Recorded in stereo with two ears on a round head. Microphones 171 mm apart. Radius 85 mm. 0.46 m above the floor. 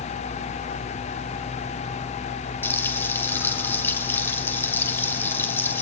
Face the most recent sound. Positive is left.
turn(degrees=10)  # may be behind; listen again after turning